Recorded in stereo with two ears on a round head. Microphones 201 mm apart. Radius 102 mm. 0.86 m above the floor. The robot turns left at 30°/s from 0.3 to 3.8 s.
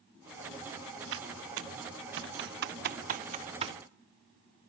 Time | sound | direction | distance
1.1 | typing on a keyboard | 55° right (ahead or behind) | 0.7 m